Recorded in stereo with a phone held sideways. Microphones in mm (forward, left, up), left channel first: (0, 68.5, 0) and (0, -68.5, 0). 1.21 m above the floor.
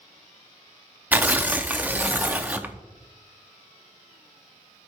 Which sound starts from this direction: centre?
Tearing paper, at 1.1 s.